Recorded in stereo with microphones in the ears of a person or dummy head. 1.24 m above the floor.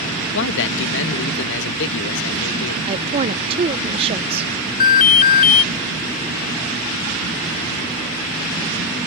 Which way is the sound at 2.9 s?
30° right (ahead or behind).